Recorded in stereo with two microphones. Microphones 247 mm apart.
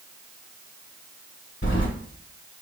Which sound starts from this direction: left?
Keys jangling, at 1.6 s.